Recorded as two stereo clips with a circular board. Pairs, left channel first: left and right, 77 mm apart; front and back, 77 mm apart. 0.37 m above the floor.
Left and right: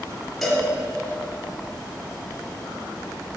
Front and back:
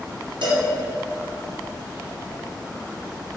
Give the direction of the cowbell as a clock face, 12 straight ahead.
6 o'clock.